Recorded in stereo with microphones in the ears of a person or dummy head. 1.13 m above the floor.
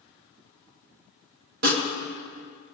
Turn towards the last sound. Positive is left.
turn(degrees=-45)  # may be behind; listen again after turning